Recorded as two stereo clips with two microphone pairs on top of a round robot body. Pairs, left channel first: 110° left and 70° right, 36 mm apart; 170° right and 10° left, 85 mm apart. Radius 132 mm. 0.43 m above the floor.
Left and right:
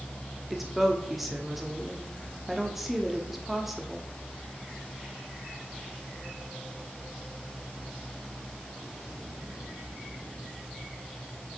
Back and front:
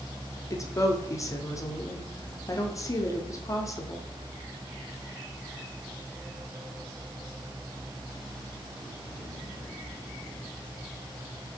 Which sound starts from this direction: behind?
A woman speaking, at 0.5 s.